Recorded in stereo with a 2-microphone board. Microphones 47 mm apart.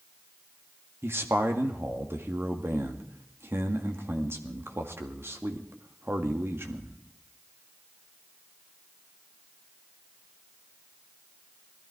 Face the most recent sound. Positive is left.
turn(degrees=-55)  # may be behind; listen again after turning